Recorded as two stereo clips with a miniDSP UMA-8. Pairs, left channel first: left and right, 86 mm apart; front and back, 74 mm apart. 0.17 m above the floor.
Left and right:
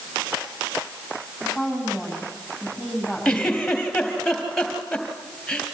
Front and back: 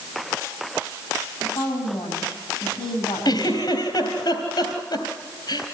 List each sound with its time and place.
1.4 s a woman speaking: 5° right, 9 m
3.2 s a giggle: 5° left, 3 m